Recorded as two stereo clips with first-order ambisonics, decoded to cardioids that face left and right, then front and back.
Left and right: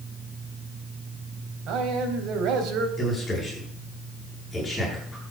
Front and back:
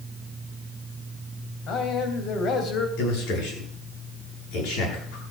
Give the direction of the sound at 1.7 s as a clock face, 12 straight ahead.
2 o'clock.